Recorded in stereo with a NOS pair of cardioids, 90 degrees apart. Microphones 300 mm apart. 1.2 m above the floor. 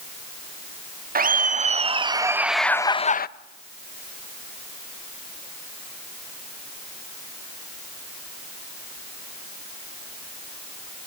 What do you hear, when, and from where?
1.1 s laughter: 30° right, 2.5 m; by 3.3 s 35° left, 1.1 m